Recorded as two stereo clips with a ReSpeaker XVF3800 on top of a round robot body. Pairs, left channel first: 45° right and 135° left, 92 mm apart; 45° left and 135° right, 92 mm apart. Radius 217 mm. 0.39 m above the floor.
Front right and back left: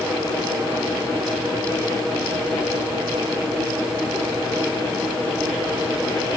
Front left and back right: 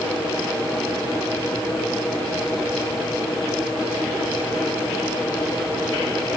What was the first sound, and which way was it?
Only background noise.